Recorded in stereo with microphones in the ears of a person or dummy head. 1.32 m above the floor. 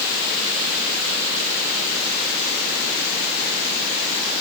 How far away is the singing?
I don't hear singing.